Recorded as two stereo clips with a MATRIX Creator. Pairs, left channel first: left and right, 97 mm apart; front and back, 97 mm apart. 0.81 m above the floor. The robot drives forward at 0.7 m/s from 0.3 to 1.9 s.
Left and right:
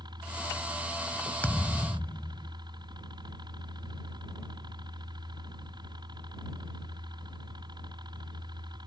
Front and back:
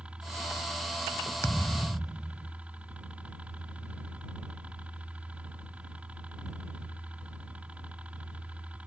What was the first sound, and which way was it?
A helicopter, 105° right.